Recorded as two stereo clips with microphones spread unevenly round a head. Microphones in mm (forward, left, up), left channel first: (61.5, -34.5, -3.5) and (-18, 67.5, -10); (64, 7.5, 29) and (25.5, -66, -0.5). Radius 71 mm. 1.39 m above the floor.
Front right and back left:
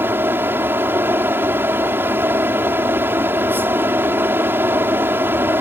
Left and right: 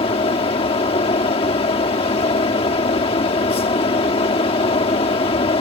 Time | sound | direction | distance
0.0 | a fan | 55° left | ?